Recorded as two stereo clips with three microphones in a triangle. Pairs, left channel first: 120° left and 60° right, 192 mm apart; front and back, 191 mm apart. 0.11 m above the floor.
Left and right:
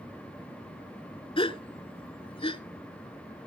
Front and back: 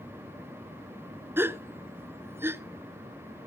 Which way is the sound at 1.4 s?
115° left.